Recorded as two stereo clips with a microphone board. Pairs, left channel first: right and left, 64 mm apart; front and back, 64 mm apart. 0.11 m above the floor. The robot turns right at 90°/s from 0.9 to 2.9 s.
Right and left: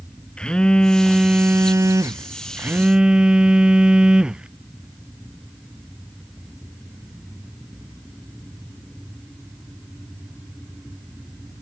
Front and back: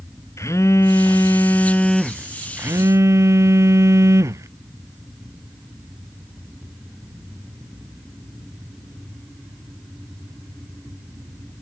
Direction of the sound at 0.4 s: 15° right.